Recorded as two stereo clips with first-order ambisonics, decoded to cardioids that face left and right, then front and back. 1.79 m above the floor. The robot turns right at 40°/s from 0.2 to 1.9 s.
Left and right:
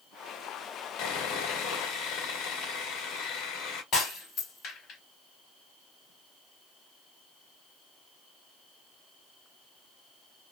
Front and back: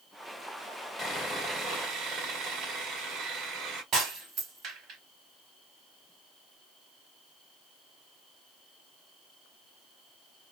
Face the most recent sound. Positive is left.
turn(degrees=135)